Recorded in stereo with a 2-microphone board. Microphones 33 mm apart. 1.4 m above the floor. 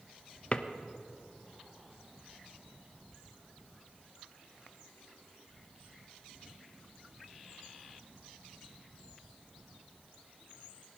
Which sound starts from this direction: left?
A drawer, at 0.5 s.